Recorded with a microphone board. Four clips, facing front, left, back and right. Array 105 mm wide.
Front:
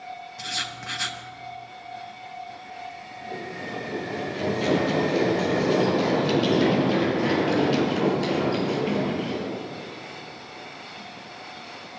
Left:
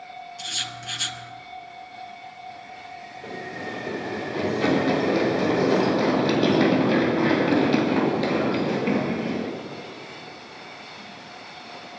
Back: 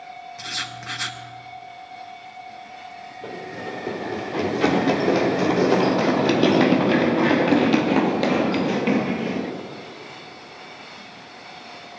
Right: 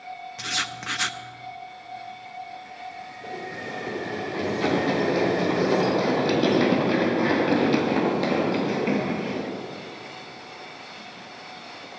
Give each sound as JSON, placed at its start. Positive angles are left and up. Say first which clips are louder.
{"t": 0.4, "sound": "writing", "louder": "right 4 dB, back 1 dB", "azimuth_deg": -100, "distance_m": 0.9}
{"t": 3.2, "sound": "running footsteps", "louder": "left 1 dB, back 2 dB", "azimuth_deg": 175, "distance_m": 5.0}